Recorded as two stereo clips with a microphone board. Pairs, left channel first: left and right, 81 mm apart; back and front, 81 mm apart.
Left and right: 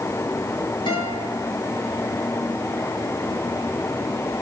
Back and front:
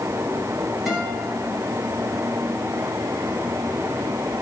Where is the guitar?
85° left, 4 m.